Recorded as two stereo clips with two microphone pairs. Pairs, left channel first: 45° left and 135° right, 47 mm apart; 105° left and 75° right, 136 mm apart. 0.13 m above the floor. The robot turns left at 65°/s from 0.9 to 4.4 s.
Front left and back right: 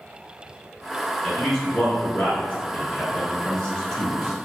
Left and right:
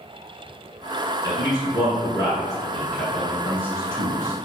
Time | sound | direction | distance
1.2 | a man speaking | 145° left | 1.2 m